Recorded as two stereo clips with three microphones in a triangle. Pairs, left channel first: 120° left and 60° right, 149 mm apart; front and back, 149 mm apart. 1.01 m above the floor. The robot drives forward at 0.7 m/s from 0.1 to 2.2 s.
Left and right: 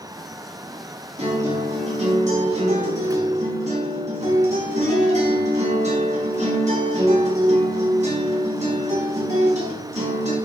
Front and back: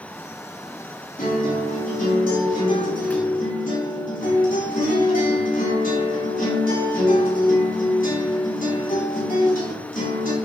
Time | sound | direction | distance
1.2 | a guitar | 20° right | 7 m